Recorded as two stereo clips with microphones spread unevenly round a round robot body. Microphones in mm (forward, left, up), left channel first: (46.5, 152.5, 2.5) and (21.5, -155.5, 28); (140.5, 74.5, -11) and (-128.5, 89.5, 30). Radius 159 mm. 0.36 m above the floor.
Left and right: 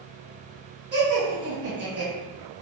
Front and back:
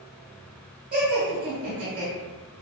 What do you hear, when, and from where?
0.9 s laughter: 130° right, 1.1 m